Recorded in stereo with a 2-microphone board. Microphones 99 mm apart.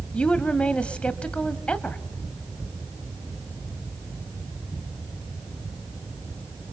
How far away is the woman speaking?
About 1.3 m.